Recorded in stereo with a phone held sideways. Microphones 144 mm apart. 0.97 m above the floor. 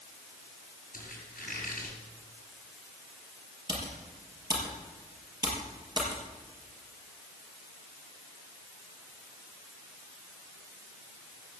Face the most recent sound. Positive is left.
turn(degrees=-30)  # may be behind; listen again after turning